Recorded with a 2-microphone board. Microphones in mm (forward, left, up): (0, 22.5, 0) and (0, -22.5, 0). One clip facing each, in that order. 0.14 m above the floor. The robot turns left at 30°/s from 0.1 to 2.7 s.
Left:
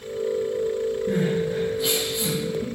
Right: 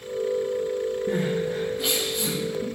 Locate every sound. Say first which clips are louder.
1.1 s crying: left 2 dB; 55° right (ahead or behind), 4.5 m; by 2.6 s 10° right (ahead or behind), 4.5 m